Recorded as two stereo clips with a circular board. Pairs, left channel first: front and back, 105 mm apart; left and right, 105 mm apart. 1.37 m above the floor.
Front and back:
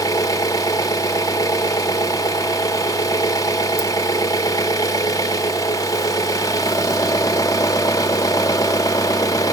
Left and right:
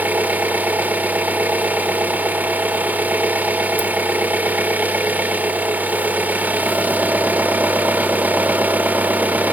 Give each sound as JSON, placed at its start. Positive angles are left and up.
{"t": 0.0, "sound": "an engine running", "azimuth_deg": -25, "distance_m": 0.9}